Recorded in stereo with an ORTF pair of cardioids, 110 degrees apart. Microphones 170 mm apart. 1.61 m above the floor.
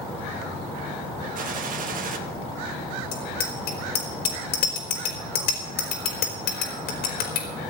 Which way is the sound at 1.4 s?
55° right.